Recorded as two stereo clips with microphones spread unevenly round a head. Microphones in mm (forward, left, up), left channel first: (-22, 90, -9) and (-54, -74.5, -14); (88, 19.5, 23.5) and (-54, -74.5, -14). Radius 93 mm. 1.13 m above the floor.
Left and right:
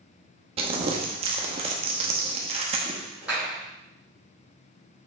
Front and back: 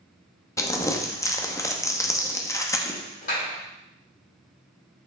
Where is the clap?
15° right, 3.5 m.